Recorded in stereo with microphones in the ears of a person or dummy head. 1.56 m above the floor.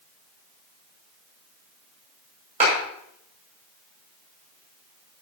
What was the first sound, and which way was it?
A clap, 35° right (ahead or behind).